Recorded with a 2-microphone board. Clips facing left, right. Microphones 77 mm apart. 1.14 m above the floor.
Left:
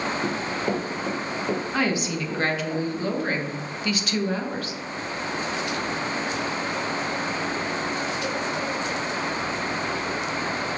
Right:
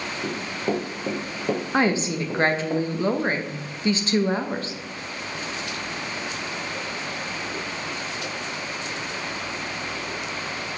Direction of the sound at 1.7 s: 30° right (ahead or behind).